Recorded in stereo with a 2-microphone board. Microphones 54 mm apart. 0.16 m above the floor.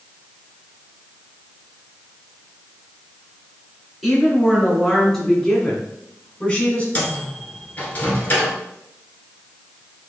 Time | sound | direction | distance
4.0 | a woman speaking | 5° right (ahead or behind) | 2 m
7.0 | a microwave | 30° left (ahead or behind) | 1.7 m